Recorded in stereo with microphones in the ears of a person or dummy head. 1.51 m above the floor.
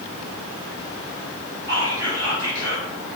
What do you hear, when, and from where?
1.7 s whispering: 20° right (ahead or behind), 1.1 m